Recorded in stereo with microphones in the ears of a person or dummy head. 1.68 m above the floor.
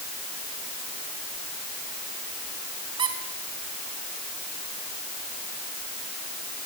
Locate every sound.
3.0 s a squeak: 25° right (ahead or behind), 1.9 m